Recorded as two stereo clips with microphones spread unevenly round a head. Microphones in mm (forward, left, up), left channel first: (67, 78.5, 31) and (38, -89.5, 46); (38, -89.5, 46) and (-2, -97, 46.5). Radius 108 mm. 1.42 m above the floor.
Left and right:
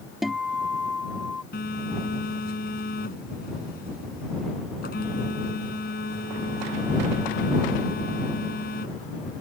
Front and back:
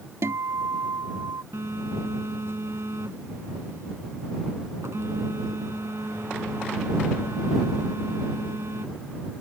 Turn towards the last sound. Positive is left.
turn(degrees=130)